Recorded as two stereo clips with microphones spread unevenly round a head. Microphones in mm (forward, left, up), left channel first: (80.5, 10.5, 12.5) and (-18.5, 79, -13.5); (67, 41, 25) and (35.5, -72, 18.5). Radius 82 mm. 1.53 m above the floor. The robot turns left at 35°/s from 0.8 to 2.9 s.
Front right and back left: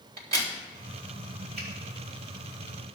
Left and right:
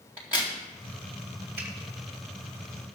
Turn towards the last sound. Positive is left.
turn(degrees=150)